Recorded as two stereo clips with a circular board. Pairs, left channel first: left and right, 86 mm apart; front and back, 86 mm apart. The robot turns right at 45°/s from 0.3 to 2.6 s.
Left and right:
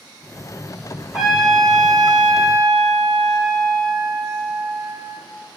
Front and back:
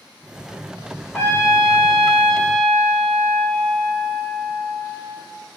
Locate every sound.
1.1 s a trumpet: 20° right, 0.7 m; by 5.2 s 45° left, 0.7 m